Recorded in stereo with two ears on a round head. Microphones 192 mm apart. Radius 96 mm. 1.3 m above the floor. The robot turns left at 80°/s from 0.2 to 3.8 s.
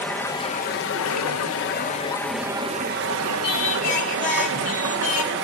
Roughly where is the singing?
Left.